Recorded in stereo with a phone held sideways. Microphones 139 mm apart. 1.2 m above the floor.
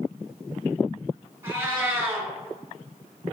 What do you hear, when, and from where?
1.4 s a cat meowing: 20° right (ahead or behind), 3 m